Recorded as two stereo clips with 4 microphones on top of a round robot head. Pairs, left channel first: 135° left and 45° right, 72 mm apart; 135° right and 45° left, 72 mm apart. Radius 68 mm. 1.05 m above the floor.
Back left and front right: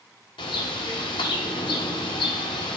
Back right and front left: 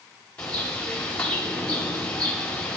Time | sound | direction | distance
0.4 | a bird | 145° left | 1.5 m